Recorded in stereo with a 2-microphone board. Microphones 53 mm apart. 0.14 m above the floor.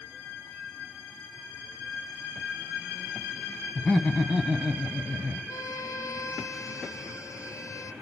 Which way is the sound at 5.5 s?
80° left.